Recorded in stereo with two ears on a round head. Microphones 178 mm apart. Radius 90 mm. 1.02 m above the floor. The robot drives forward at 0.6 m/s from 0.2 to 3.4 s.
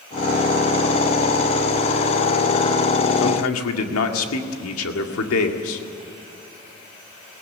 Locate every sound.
3.2 s a man speaking: 75° left (ahead or behind), 2 m